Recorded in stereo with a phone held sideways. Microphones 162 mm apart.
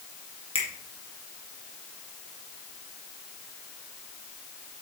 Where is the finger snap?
35° left (ahead or behind), 2 m.